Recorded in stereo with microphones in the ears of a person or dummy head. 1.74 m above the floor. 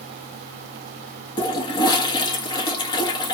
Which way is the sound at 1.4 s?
25° left (ahead or behind).